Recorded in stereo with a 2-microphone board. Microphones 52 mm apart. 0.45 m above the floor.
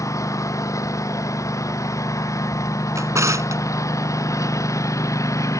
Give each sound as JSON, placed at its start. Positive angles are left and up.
{"t": 0.0, "sound": "a lawn mower", "side_deg": 85}
{"t": 3.0, "sound": "a drawer", "side_deg": -80}